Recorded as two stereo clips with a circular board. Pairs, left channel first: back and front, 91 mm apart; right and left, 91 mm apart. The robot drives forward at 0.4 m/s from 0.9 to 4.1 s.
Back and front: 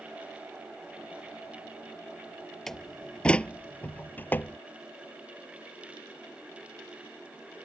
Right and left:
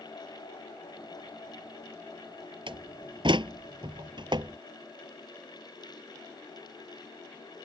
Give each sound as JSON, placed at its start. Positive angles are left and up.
{"t": 2.7, "sound": "a door slam", "azimuth_deg": 95}